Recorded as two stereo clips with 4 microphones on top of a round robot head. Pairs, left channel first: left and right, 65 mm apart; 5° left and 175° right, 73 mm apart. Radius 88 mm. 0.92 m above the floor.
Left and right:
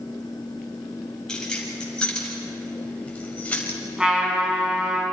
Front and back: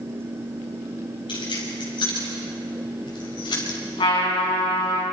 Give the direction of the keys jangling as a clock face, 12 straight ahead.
12 o'clock.